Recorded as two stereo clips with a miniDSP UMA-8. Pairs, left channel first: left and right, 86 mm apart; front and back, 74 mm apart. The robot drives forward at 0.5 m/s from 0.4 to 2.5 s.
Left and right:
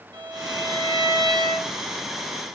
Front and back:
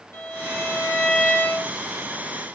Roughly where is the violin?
Ahead right.